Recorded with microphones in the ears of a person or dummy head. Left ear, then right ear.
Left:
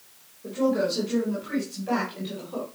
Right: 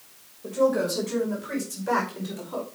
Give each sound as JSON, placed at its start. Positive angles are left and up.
{"t": 0.4, "sound": "a woman speaking", "side_deg": -40, "distance_m": 6.0}